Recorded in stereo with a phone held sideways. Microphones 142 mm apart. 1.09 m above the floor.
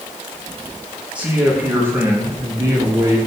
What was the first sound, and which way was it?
A man speaking, 10° right (ahead or behind).